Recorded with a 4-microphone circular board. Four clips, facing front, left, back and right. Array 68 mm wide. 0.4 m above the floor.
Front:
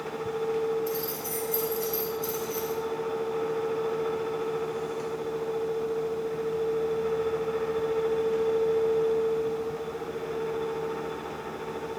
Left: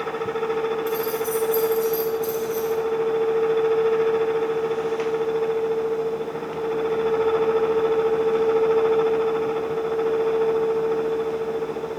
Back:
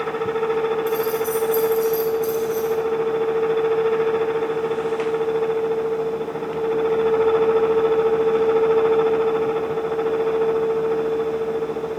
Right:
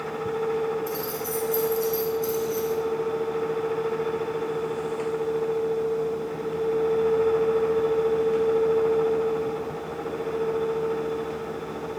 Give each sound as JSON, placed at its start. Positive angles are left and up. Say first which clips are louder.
{"t": 0.9, "sound": "keys jangling", "louder": "left 6 dB, back 11 dB", "azimuth_deg": 5, "distance_m": 2.5}